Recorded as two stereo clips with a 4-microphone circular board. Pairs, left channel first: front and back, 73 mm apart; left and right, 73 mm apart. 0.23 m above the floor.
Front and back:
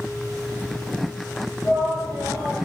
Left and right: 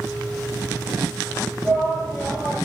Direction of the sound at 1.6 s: 35° left.